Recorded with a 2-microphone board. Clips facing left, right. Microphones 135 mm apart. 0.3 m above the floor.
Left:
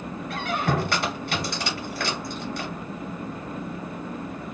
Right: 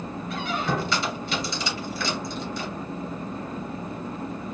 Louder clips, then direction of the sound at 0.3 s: Left 2 dB; 60° left (ahead or behind).